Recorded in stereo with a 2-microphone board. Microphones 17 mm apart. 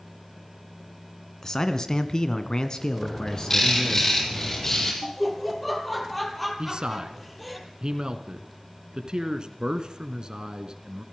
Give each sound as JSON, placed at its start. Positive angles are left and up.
{"t": 1.4, "sound": "a man speaking", "side_deg": 35, "distance_m": 2.5}
{"t": 3.0, "sound": "a bird", "side_deg": 25, "distance_m": 7.5}
{"t": 5.0, "sound": "laughter", "side_deg": 0, "distance_m": 5.0}
{"t": 6.6, "sound": "a man speaking", "side_deg": -55, "distance_m": 2.0}